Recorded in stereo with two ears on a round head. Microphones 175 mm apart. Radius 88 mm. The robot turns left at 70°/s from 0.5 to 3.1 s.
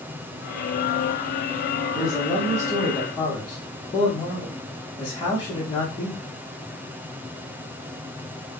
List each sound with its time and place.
1.9 s a man speaking: 5° right (ahead or behind), 1.3 m; by 6.3 s 25° left (ahead or behind), 1.3 m